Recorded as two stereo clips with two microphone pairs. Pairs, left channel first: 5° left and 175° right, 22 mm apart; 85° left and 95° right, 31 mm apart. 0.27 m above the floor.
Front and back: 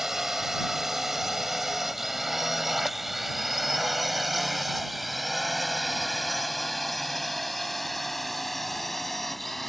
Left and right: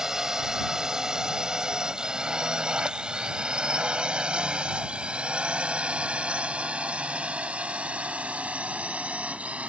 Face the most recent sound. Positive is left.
turn(degrees=-70)